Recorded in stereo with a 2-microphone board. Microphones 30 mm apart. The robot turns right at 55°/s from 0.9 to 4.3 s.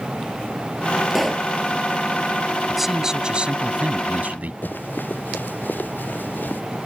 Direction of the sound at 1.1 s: 5° right (ahead or behind).